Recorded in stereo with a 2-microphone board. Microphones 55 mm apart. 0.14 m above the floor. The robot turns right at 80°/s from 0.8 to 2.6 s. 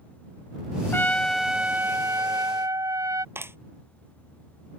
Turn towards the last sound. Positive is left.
turn(degrees=-45)  # may be behind; listen again after turning